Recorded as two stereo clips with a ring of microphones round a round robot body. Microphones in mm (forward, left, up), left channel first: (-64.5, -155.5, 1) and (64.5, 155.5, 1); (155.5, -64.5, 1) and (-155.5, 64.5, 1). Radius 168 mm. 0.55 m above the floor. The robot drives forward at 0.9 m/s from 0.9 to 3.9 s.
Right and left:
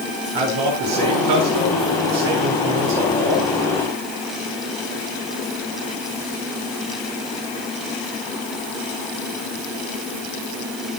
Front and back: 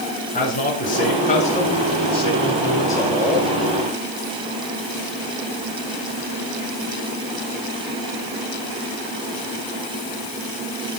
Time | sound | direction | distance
0.3 | a man speaking | 45° left | 7 m